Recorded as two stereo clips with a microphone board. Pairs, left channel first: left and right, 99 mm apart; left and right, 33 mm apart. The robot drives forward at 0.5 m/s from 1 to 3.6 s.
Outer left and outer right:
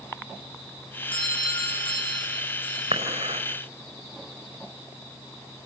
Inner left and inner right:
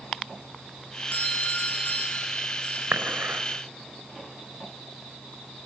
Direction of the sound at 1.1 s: 60° left (ahead or behind).